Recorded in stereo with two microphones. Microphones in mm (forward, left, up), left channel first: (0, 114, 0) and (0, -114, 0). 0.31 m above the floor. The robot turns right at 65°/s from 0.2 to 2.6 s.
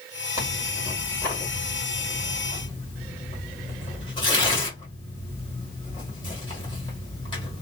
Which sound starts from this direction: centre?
Tearing paper, at 0.4 s.